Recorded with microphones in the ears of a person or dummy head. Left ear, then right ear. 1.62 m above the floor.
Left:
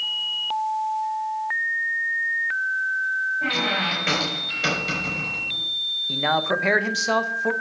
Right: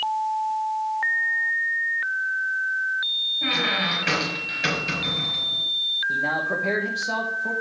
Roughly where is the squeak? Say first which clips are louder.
Even; centre.